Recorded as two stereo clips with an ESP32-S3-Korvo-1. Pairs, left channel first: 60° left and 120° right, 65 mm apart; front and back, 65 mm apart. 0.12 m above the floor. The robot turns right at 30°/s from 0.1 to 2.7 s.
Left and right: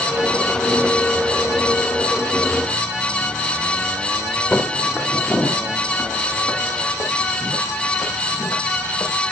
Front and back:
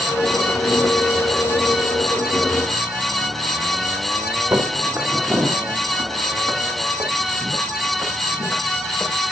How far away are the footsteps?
About 2.5 m.